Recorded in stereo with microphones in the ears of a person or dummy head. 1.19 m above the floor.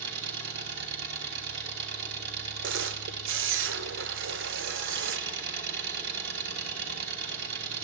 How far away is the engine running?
About 4.5 m.